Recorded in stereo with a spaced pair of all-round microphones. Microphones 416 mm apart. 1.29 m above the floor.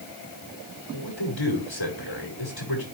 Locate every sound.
0.9 s a man speaking: 80° left, 5 m